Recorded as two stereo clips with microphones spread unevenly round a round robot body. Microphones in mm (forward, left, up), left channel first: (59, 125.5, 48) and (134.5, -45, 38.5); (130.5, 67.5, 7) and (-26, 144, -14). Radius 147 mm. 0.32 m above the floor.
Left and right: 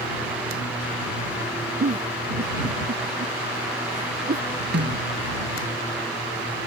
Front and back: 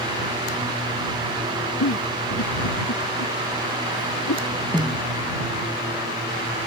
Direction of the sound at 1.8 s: 25° right.